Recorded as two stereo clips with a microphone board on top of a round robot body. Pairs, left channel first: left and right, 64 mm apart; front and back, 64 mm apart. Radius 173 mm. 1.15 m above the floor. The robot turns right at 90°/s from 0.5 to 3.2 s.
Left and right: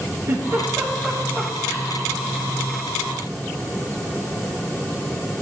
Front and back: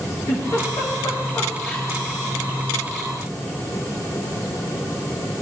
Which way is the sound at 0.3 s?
45° right.